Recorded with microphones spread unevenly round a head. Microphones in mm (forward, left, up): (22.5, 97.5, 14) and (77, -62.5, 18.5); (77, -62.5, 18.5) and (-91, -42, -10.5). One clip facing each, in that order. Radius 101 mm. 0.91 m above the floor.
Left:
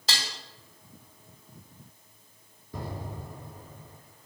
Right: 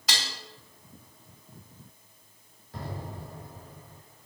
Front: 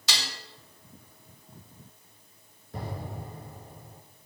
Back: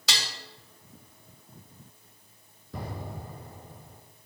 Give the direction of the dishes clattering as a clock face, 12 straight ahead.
6 o'clock.